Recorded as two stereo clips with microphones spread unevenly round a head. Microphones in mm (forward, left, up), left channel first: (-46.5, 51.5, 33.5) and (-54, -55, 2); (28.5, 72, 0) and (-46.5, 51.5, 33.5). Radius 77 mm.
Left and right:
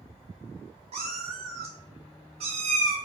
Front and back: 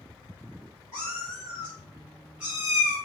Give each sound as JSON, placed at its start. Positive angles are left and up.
{"t": 0.9, "sound": "a cat meowing", "azimuth_deg": -115, "distance_m": 0.9}